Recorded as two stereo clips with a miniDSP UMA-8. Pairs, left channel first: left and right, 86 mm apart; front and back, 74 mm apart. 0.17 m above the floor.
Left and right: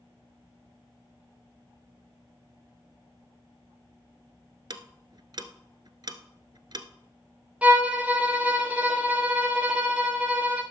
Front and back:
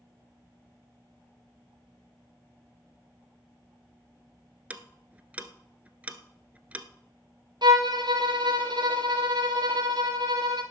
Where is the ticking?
110° right, 1.0 m.